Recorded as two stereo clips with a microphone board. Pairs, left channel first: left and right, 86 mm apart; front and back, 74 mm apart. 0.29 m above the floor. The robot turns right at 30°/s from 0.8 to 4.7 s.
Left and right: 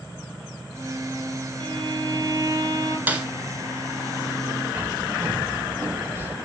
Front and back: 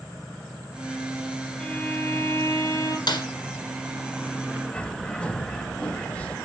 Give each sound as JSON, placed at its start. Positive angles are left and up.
{"t": 1.6, "sound": "a violin", "azimuth_deg": -80, "distance_m": 1.5}
{"t": 3.1, "sound": "a snare drum", "azimuth_deg": -20, "distance_m": 1.2}
{"t": 4.7, "sound": "a bird", "azimuth_deg": -60, "distance_m": 0.8}